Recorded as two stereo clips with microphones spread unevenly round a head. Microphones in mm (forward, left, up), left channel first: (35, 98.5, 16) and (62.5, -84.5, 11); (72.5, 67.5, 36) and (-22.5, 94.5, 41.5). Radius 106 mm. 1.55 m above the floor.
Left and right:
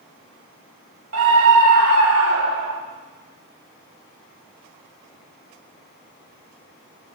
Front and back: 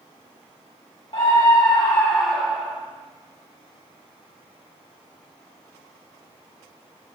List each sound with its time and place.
1.1 s a scream: 75° right, 2 m; by 2.8 s 110° right, 2.5 m